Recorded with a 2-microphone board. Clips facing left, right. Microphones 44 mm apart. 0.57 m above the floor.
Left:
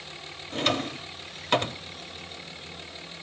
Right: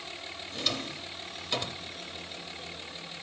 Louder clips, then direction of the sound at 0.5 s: Left 8 dB; 45° left (ahead or behind).